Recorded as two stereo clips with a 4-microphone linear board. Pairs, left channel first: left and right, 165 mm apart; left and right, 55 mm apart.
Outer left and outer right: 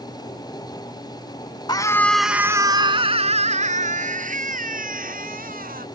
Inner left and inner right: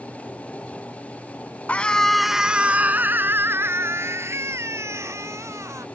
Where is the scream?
25° left (ahead or behind); by 5.8 s 60° right (ahead or behind).